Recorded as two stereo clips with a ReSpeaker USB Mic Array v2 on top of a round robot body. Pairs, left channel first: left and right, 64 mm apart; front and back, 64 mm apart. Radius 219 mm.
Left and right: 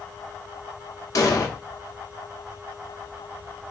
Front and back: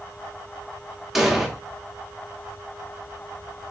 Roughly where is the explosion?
Left.